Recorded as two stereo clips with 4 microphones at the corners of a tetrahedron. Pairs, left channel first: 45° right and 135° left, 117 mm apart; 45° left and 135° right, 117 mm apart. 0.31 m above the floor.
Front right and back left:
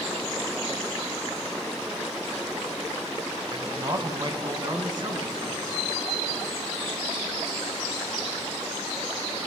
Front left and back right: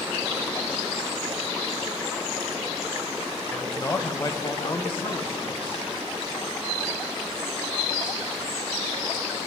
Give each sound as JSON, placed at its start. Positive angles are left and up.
{"t": 3.5, "sound": "a man speaking", "azimuth_deg": 110, "distance_m": 1.2}